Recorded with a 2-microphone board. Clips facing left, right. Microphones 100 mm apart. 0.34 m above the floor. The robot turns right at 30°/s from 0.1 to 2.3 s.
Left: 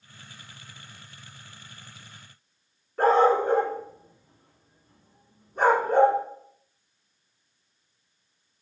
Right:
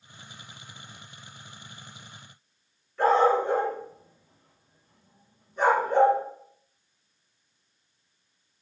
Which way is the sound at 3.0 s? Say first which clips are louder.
Left 1 dB; 50° left (ahead or behind).